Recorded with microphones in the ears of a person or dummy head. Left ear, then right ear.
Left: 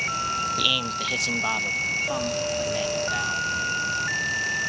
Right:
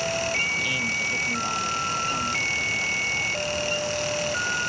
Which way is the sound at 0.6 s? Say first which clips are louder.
Left 2 dB; 70° left (ahead or behind).